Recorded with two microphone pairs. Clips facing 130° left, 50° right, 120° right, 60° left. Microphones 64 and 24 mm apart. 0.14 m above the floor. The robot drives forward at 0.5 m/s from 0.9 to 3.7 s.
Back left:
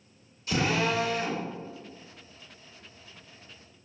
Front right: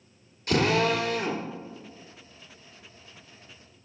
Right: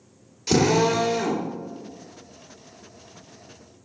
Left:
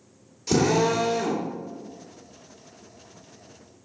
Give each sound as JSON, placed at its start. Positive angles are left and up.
{"t": 0.5, "sound": "a drill", "azimuth_deg": -65, "distance_m": 3.0}